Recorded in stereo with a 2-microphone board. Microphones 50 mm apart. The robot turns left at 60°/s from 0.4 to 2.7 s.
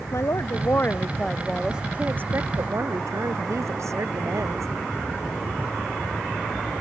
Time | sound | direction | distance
0.1 | a woman speaking | 65° left | ?